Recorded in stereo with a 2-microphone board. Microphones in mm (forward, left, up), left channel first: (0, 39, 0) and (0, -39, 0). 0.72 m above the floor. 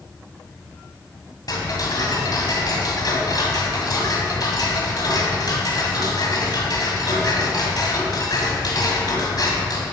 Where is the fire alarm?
No fire alarm in this recording.